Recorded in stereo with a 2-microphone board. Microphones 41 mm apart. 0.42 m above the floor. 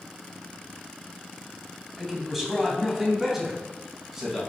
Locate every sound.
2.0 s a man speaking: 5° right (ahead or behind), 3 m; by 4.4 s 10° right (ahead or behind), 4.5 m